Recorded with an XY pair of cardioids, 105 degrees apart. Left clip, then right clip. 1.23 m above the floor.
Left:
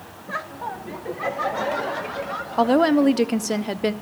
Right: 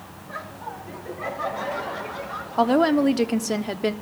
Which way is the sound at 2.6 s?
10° left.